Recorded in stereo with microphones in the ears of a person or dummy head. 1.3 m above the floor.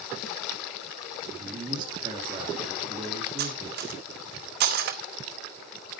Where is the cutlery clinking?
50° right (ahead or behind), 1.5 m.